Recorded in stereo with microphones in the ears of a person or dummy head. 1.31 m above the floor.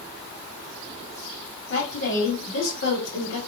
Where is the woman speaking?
75° left (ahead or behind), 1.9 m.